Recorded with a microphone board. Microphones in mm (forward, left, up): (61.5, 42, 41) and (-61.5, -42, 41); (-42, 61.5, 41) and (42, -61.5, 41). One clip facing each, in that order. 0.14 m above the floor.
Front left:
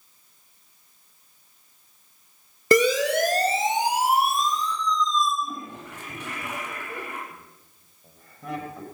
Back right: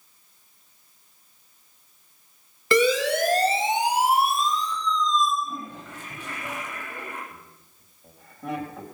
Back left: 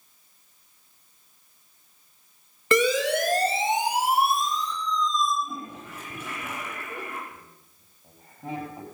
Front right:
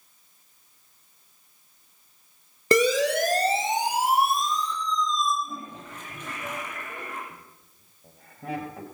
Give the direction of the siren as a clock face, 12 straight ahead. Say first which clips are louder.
Front left 1 dB, front right 1 dB; 12 o'clock.